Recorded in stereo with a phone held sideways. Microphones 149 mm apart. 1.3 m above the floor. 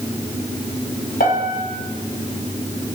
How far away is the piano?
About 3.5 m.